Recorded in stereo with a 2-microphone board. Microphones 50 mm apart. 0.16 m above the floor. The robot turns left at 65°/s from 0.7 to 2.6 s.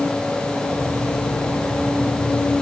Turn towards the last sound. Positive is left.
No sound to turn to.